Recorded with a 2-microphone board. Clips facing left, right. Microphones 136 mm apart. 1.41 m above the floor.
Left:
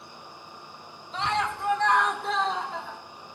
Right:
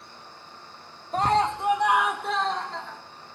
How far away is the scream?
About 0.6 m.